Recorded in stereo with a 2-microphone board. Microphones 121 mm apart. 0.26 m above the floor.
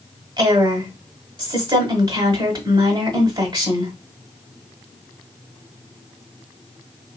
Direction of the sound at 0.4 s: 40° right (ahead or behind).